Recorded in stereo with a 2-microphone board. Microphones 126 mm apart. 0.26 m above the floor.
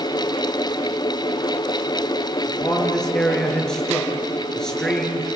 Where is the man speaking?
5° left (ahead or behind), 4.5 m.